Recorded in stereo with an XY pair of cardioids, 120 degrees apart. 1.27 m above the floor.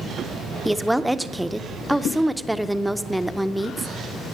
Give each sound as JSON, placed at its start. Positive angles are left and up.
{"t": 0.7, "sound": "a woman speaking", "azimuth_deg": -5, "distance_m": 0.5}